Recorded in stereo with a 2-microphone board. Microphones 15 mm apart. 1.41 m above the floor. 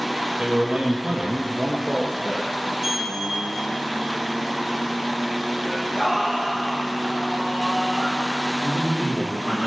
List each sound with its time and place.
0.4 s a man speaking: 55° right (ahead or behind), 2.0 m; by 2.5 s 50° right (ahead or behind), 2.5 m
2.8 s a sliding door: 15° right (ahead or behind), 1.4 m
5.6 s singing: 30° right (ahead or behind), 5.5 m
8.6 s a man speaking: 60° left (ahead or behind), 2.5 m